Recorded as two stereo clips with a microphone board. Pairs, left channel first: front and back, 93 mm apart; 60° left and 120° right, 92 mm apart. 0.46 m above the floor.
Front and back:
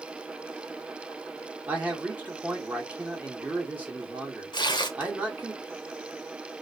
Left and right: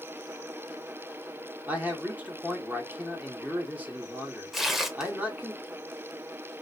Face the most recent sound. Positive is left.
turn(degrees=-30)